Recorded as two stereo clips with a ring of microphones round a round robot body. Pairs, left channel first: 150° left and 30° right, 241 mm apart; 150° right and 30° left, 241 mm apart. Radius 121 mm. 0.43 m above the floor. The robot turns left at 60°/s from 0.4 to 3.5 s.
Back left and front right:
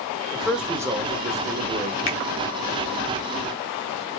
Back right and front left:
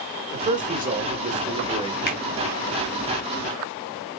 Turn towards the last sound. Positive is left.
turn(degrees=85)